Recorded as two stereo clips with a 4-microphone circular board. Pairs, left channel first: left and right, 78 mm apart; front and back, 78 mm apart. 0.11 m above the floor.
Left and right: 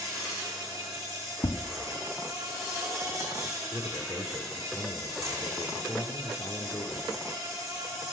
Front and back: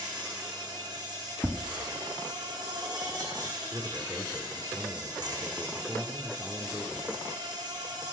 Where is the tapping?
105° left, 1.5 m.